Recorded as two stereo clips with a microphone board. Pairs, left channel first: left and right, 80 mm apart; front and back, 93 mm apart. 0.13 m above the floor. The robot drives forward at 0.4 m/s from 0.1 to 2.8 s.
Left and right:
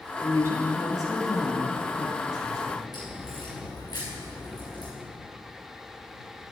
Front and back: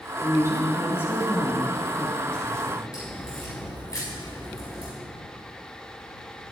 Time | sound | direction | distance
0.2 | a woman speaking | 50° left | 2.5 m
2.9 | a crack | 55° left | 3.5 m